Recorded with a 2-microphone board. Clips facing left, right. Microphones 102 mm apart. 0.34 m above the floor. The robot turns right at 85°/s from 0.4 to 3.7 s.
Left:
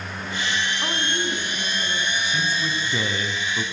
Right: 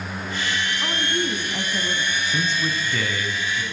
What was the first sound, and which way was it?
A woman speaking, 170° left.